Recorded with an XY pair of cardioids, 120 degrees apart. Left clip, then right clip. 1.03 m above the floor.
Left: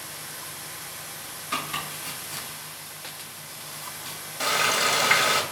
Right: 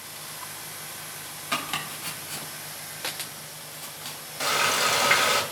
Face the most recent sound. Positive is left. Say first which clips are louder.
# left 1 dB
turn(degrees=-5)